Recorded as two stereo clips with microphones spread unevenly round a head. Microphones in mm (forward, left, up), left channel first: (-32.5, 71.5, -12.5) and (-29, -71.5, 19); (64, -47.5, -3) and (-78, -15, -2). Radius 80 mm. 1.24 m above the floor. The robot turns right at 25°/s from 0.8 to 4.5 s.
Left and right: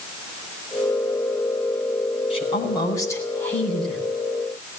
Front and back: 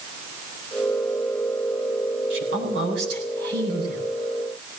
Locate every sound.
2.3 s a woman speaking: 140° left, 7 m; by 4.1 s 175° right, 7 m